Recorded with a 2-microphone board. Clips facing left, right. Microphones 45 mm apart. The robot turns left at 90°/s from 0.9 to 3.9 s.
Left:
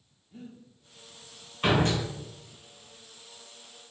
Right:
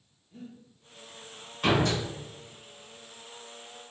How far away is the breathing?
About 1.2 m.